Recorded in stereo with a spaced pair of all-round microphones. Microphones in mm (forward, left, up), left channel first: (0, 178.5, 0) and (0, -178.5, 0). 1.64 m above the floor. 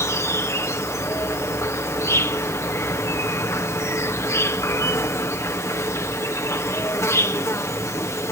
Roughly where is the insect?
Centre.